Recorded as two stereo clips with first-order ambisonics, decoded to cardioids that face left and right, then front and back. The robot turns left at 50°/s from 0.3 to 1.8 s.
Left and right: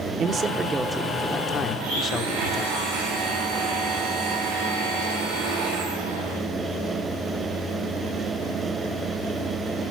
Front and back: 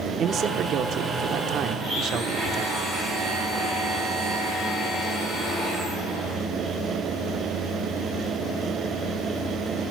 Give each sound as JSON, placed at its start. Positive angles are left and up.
{"t": 0.2, "sound": "a man speaking", "azimuth_deg": -140, "distance_m": 1.1}
{"t": 1.8, "sound": "a blender", "azimuth_deg": -105, "distance_m": 6.0}